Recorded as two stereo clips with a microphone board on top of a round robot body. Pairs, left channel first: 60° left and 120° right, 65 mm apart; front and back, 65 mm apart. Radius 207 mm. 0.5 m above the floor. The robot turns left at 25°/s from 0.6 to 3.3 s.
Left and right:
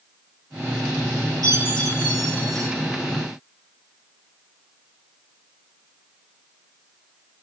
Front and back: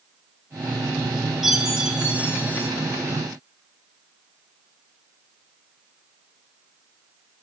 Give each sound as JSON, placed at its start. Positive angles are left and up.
{"t": 1.4, "sound": "a chime", "azimuth_deg": -95, "distance_m": 5.5}